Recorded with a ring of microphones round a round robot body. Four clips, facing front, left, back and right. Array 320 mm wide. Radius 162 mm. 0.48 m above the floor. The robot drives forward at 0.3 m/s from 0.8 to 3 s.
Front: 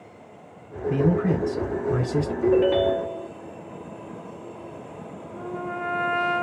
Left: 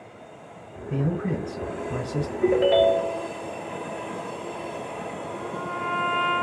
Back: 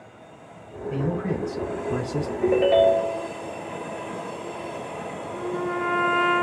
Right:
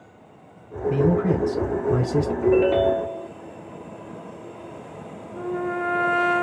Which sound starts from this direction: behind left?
A ringtone, at 2.4 s.